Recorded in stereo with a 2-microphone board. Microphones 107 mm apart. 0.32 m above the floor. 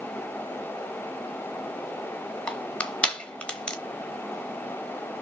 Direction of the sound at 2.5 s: 10° left (ahead or behind).